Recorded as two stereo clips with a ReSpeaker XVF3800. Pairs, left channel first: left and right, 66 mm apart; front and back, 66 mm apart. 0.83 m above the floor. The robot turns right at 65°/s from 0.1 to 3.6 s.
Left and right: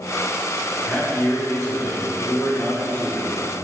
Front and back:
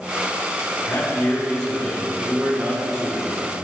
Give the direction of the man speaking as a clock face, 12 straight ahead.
11 o'clock.